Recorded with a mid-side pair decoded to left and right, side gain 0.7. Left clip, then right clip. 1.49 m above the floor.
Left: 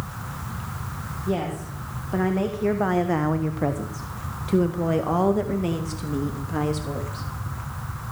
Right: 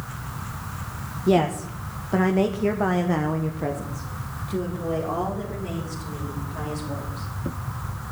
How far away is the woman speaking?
About 1.7 m.